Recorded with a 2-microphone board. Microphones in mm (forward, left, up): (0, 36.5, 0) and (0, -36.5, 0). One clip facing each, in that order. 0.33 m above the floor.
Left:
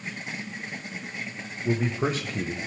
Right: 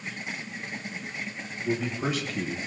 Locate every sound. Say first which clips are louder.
1.6 s a man speaking: left 3 dB; 35° left (ahead or behind), 1.1 m